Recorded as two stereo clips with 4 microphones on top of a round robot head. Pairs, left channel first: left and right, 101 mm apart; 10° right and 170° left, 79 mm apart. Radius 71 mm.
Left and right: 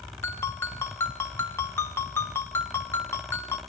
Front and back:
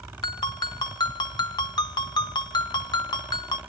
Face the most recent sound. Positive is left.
turn(degrees=20)